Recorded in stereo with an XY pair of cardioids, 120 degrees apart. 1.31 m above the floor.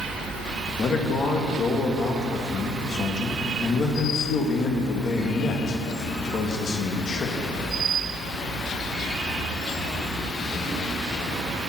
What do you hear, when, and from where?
0.8 s a man speaking: 40° left, 1.8 m